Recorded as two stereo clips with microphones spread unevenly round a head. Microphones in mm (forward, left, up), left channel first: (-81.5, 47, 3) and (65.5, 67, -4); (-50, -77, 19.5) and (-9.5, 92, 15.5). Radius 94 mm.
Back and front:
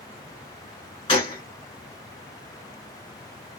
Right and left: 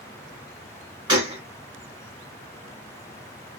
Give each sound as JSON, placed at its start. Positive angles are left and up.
{"t": 1.1, "sound": "a gunshot", "azimuth_deg": 140, "distance_m": 1.6}